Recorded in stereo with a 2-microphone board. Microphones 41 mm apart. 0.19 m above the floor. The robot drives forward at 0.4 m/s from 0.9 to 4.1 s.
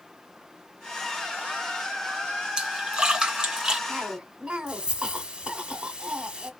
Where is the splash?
25° right (ahead or behind), 2 m; by 3.8 s 20° right (ahead or behind), 2.5 m.